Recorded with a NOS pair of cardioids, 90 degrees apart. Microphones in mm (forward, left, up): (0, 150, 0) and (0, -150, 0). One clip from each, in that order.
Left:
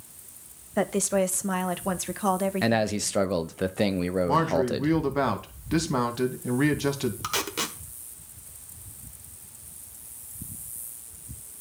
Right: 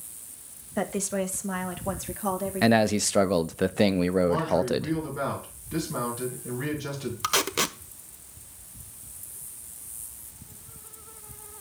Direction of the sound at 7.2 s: 20° right.